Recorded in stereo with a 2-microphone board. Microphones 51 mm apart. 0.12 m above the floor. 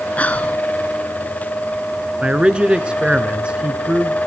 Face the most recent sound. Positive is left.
turn(degrees=-20)  # may be behind; listen again after turning